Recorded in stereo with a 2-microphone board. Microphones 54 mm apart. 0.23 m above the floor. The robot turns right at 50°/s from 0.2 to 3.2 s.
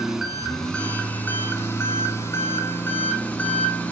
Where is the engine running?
10° right, 1.0 m; by 3.9 s 140° left, 1.0 m.